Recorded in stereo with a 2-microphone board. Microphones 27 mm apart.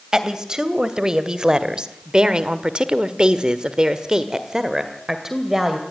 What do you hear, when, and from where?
0.1 s a woman speaking: 25° right (ahead or behind), 2.5 m; by 5.8 s 10° right (ahead or behind), 2.5 m